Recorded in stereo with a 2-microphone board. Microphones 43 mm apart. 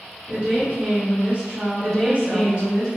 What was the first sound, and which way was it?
A woman speaking, 40° right (ahead or behind).